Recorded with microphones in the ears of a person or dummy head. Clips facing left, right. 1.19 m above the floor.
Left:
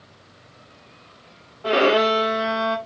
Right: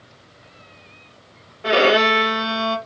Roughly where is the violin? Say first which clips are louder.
Right 1 dB; right.